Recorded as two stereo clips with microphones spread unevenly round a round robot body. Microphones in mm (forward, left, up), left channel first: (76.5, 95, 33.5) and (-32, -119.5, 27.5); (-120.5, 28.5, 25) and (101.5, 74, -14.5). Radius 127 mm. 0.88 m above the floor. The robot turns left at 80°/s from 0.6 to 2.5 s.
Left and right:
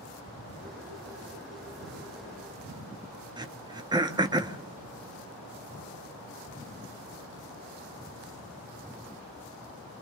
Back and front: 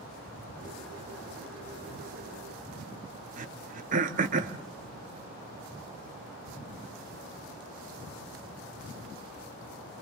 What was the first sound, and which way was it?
Throat clearing, 45° right.